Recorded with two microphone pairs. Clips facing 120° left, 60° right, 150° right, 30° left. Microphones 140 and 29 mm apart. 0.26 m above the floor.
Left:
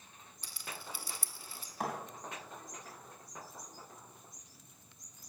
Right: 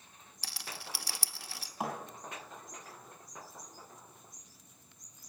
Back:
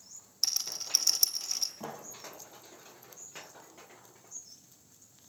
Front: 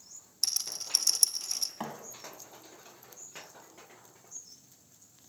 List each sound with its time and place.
0.4 s a rattle: 65° right, 0.6 m
1.8 s a thud: 20° left, 3.5 m